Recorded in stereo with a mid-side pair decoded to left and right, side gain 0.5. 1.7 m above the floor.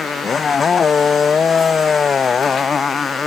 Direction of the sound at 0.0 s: 35° left.